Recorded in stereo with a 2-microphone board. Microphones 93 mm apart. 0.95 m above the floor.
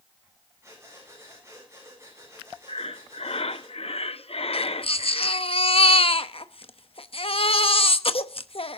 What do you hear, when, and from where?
0.6 s breathing: 30° right (ahead or behind), 9.5 m
2.7 s breathing: 75° left (ahead or behind), 0.7 m
4.5 s a baby crying: 70° left (ahead or behind), 0.9 m